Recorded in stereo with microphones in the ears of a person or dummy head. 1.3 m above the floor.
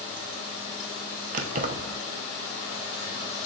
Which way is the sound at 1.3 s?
50° right (ahead or behind).